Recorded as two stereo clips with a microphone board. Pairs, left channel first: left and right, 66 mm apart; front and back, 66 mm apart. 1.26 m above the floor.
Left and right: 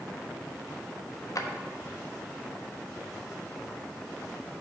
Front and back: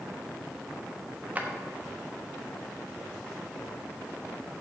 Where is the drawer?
115° left, 1.0 m.